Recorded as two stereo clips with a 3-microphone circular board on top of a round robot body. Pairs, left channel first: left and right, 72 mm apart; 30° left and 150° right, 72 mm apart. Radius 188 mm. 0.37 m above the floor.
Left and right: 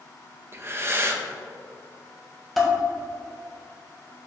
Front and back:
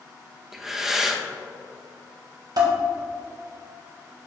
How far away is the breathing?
About 1.3 m.